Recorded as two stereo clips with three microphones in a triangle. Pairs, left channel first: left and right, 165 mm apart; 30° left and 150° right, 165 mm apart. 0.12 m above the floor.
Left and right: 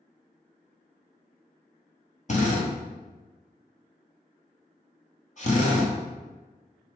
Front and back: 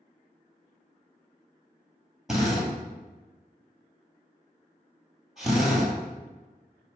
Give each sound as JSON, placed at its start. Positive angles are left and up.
{"t": 2.3, "sound": "a drill", "azimuth_deg": 120, "distance_m": 1.4}